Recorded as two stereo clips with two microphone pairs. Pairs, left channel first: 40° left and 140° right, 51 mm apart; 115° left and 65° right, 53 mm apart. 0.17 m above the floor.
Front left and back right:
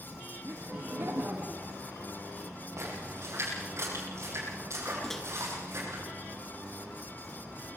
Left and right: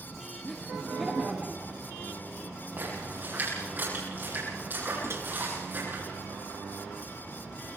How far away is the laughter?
About 2 m.